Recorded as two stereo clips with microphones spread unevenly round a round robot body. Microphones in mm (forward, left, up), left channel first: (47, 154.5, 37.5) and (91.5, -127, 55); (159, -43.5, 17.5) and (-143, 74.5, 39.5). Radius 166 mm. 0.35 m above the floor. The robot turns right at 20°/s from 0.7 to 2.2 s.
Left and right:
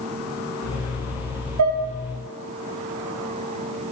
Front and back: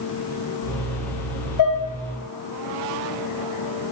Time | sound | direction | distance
1.6 | dishes clattering | 55° right | 4 m